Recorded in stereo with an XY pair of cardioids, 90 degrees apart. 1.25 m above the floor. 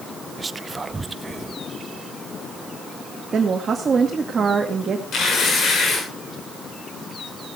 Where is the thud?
No thud in this recording.